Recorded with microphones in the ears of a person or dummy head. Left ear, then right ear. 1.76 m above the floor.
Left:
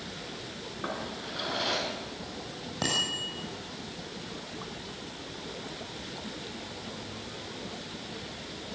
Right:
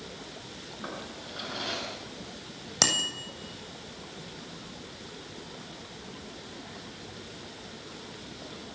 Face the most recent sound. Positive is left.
turn(degrees=-85)